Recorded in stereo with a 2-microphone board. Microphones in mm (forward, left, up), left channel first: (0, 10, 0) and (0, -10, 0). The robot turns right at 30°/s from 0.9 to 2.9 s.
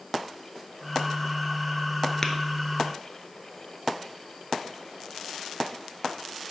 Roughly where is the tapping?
Centre.